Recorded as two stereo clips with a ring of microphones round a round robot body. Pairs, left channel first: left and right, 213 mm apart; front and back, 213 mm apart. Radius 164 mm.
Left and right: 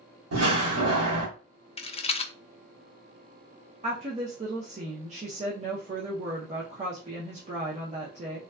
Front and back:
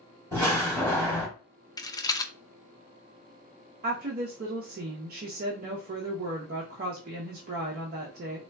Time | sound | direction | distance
0.3 | a door slam | 105° right | 1.6 m
1.8 | a rattle | 60° left | 0.5 m
3.8 | a woman speaking | 145° right | 0.5 m